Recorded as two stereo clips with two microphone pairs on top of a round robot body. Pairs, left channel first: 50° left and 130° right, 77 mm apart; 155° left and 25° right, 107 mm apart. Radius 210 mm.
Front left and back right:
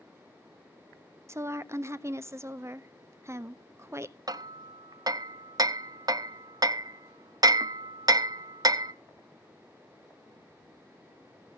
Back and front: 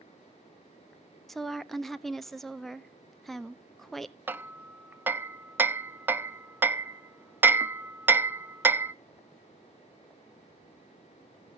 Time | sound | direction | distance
1.3 | a woman speaking | 120° right | 1.0 m
4.3 | hammering | 100° right | 0.9 m